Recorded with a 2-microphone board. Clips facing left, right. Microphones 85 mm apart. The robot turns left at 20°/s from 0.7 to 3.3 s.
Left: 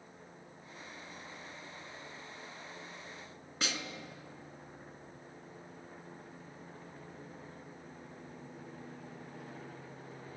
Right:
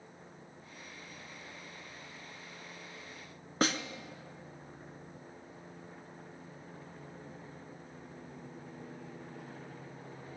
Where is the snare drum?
45° right (ahead or behind), 0.9 m.